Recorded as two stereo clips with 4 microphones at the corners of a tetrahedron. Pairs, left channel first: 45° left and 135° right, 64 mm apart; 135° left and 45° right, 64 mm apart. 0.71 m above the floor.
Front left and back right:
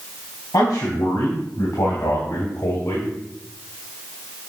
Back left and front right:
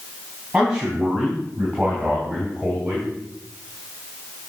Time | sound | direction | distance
0.5 | a man speaking | 30° left | 4 m